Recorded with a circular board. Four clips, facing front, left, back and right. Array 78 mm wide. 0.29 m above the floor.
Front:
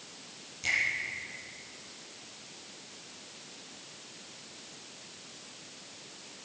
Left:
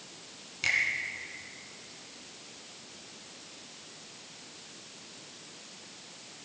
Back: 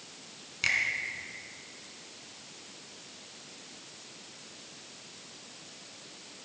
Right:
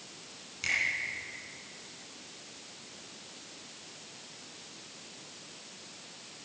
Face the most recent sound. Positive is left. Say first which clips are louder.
# left 3 dB, back 2 dB
turn(degrees=160)